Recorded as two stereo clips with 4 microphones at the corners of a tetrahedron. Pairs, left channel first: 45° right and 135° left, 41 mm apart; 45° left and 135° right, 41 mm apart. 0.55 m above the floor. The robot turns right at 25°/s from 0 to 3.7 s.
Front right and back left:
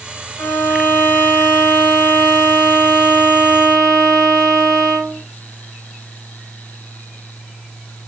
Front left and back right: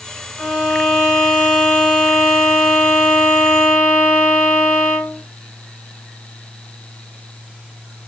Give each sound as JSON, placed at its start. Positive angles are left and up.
{"t": 0.4, "sound": "a violin", "azimuth_deg": -65, "distance_m": 1.8}